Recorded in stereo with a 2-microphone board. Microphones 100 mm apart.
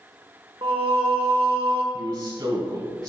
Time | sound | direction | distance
0.6 | singing | 75° right (ahead or behind) | 1.0 m
1.9 | a man speaking | 55° right (ahead or behind) | 3 m